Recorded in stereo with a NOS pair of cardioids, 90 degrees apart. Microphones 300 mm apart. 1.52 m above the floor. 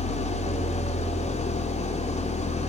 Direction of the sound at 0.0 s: 20° left.